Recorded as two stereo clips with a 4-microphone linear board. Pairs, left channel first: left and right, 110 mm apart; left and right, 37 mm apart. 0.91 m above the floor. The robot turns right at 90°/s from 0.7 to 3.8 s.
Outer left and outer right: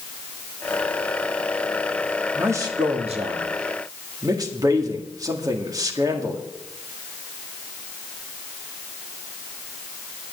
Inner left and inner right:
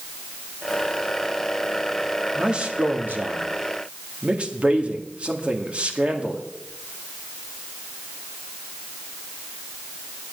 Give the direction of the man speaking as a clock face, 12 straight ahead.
6 o'clock.